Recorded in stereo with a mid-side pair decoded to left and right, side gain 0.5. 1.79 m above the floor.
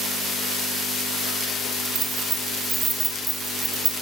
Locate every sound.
1.9 s keys jangling: 45° right, 3.5 m; by 3.9 s 20° right, 1.7 m